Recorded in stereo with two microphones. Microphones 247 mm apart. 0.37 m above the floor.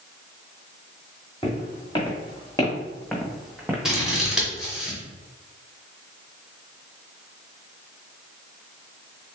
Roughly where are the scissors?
Centre.